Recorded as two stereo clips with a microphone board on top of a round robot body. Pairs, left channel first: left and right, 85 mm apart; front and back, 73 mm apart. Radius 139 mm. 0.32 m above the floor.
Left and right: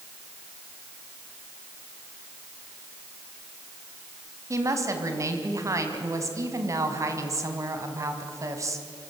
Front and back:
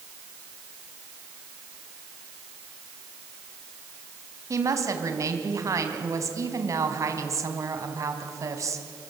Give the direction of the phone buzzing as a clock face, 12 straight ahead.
No phone buzzing in this recording.